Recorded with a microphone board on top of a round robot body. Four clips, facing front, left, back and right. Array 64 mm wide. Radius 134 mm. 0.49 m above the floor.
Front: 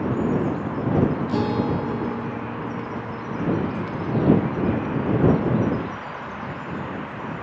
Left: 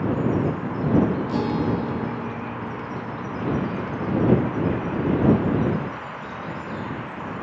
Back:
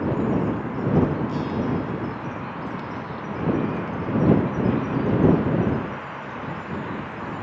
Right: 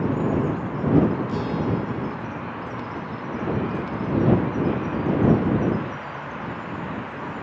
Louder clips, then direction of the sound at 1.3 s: Left 2 dB, front 3 dB; 25° left.